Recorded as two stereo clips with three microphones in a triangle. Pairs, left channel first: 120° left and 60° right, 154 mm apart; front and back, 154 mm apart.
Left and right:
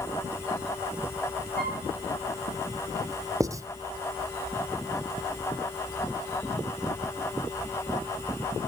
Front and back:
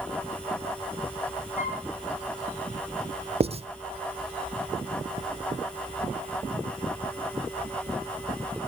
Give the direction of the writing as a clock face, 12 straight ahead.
4 o'clock.